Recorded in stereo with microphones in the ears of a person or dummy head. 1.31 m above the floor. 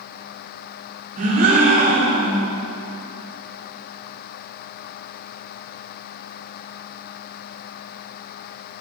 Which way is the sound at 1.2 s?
50° right (ahead or behind).